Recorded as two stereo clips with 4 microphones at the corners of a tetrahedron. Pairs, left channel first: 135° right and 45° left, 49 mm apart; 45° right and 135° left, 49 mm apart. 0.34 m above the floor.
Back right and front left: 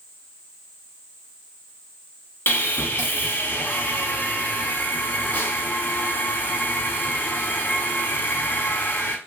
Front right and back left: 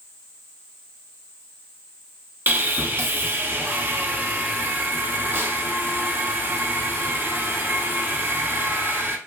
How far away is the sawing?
About 0.7 m.